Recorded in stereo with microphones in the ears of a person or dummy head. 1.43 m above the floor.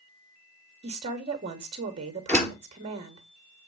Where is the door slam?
10° left (ahead or behind), 3 m.